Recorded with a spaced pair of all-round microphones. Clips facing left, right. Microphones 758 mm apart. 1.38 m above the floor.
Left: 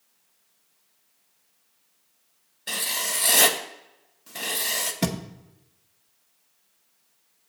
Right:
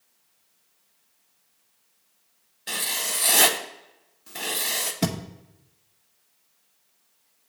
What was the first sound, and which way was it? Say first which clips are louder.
Writing: even; 5° left (ahead or behind).